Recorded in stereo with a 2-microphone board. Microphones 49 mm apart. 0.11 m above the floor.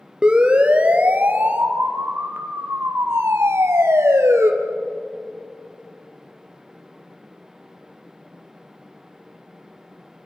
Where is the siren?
20° right (ahead or behind), 2 m; by 4.5 s 65° right (ahead or behind), 2.5 m.